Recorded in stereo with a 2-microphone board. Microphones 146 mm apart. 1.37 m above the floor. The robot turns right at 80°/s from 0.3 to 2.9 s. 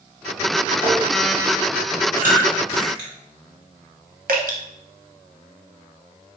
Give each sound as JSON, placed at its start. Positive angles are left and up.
{"t": 0.8, "sound": "tapping", "side_deg": 25, "distance_m": 2.0}
{"t": 2.2, "sound": "chewing", "side_deg": -70, "distance_m": 2.5}
{"t": 4.3, "sound": "dripping", "side_deg": -80, "distance_m": 0.9}